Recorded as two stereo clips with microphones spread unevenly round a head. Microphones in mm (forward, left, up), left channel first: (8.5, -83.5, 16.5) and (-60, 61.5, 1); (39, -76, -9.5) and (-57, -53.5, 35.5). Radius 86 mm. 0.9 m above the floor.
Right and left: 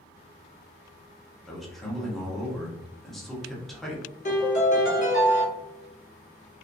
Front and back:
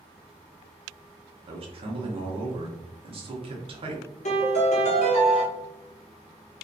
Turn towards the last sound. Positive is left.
turn(degrees=-15)